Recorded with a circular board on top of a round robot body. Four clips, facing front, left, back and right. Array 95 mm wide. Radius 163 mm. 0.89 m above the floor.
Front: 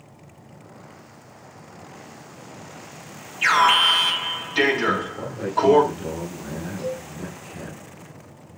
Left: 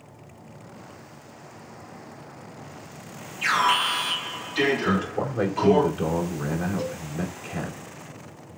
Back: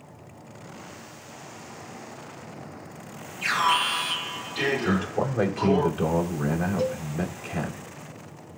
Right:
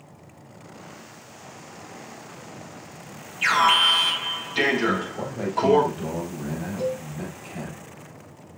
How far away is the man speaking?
About 4 m.